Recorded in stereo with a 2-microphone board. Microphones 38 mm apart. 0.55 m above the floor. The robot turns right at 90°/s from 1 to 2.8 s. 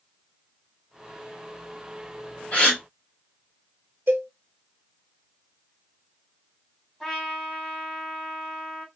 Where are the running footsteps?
No running footsteps in this recording.